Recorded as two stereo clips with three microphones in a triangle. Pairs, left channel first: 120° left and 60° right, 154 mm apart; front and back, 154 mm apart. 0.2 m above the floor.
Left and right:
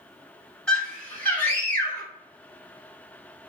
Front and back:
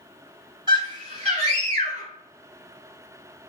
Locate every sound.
0.7 s a scream: 160° right, 1.1 m; by 2.1 s 165° right, 1.7 m